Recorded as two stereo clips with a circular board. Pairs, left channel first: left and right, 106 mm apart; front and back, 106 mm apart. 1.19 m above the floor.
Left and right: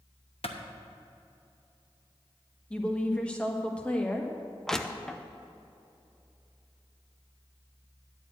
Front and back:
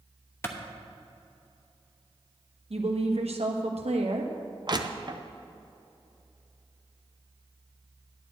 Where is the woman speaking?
170° left, 1.2 m.